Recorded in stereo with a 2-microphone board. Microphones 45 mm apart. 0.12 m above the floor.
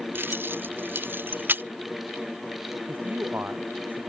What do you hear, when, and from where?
0.1 s keys jangling: 50° right (ahead or behind); by 1.6 s 45° right (ahead or behind)
2.9 s a man speaking: 45° right (ahead or behind)